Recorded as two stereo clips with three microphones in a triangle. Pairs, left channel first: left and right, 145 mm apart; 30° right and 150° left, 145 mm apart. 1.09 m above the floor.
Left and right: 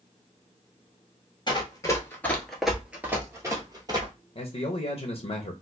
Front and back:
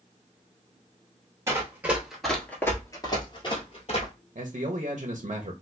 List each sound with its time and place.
1.5 s running footsteps: 100° left, 1.2 m; by 4.1 s 45° right, 1.6 m
4.3 s a man speaking: 120° left, 0.6 m